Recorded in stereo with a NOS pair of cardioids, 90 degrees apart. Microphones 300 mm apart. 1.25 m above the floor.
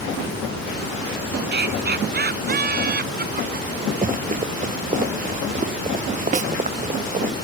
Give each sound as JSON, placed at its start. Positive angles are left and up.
{"t": 1.5, "sound": "laughter", "azimuth_deg": -35}
{"t": 4.0, "sound": "running footsteps", "azimuth_deg": -25}
{"t": 6.3, "sound": "a snare drum", "azimuth_deg": -25}